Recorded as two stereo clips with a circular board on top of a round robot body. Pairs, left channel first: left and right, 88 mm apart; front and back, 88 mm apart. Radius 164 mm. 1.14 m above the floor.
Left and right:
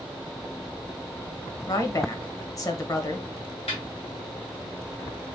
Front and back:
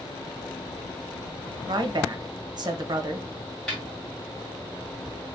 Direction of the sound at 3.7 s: 85° left.